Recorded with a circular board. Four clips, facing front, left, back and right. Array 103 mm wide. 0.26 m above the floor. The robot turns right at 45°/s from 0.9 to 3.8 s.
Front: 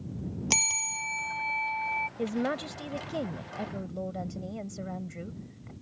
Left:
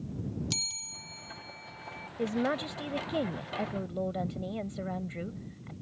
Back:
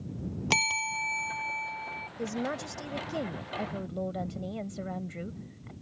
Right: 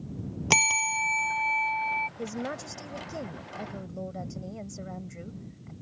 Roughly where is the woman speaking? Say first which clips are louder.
Left 4 dB, front 1 dB; ahead left.